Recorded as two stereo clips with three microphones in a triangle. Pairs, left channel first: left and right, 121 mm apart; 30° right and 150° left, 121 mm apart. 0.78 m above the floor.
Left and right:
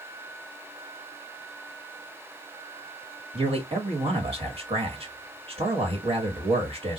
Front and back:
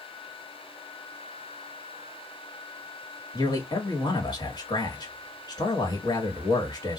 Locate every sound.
3.3 s a man speaking: 75° right, 1.5 m